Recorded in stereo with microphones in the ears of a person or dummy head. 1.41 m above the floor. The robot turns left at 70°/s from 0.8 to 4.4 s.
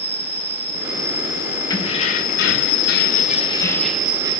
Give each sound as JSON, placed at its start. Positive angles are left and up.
{"t": 0.0, "sound": "an insect", "azimuth_deg": -165, "distance_m": 0.8}
{"t": 1.7, "sound": "keys jangling", "azimuth_deg": 155, "distance_m": 1.2}